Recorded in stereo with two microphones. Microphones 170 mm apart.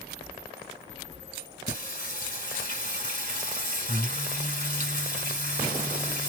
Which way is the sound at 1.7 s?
50° left (ahead or behind).